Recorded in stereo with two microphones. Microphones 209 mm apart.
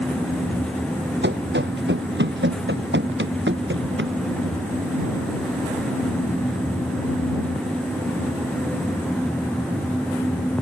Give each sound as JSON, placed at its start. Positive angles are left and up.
{"t": 1.2, "sound": "running footsteps", "side_deg": -55}